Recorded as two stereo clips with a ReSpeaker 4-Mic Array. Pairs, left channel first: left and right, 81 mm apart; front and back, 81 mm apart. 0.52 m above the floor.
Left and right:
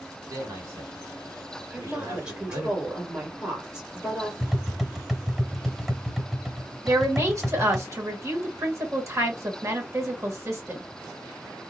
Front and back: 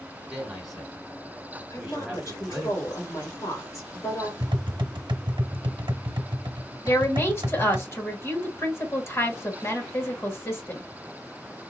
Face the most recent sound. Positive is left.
turn(degrees=-45)